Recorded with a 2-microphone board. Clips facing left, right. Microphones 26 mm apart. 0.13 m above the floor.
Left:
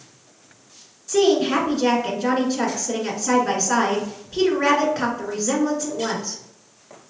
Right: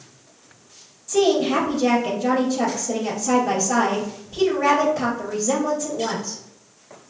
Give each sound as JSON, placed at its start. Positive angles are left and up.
{"t": 1.1, "sound": "a woman speaking", "side_deg": 35, "distance_m": 1.4}